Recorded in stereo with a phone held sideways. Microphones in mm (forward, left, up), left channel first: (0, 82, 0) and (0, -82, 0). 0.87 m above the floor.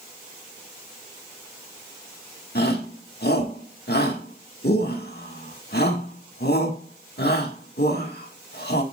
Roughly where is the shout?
Left.